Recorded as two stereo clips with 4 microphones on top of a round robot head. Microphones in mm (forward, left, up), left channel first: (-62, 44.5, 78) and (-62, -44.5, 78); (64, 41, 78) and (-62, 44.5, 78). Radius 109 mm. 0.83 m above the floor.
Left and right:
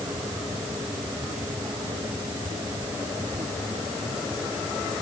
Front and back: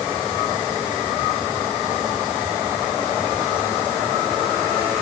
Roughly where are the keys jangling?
No keys jangling in this recording.